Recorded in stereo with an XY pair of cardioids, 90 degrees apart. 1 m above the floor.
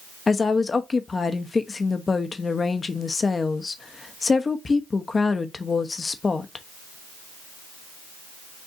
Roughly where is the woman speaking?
Ahead left.